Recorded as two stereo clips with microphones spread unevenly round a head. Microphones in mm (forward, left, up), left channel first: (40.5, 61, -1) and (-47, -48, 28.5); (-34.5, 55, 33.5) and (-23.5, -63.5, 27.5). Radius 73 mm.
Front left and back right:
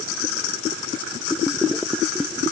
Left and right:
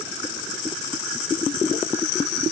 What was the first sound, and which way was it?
Only background noise.